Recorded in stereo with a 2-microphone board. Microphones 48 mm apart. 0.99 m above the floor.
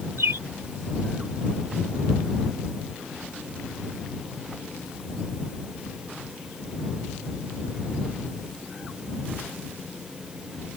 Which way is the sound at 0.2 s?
70° right (ahead or behind).